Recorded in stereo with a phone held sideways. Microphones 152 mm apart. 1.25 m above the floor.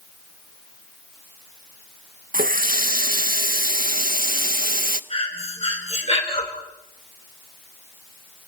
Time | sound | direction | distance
2.3 | a running tap | 70° right (ahead or behind) | 0.8 m
5.1 | breathing | 40° left (ahead or behind) | 3 m